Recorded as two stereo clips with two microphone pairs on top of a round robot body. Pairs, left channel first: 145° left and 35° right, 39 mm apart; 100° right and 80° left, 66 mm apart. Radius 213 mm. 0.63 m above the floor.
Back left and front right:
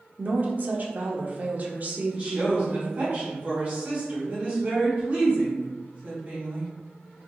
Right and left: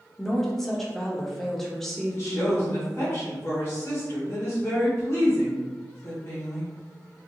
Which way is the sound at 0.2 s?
25° right.